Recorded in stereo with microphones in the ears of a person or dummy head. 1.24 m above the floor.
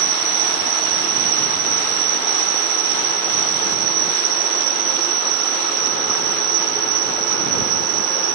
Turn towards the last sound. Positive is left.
turn(degrees=-60)  # may be behind; listen again after turning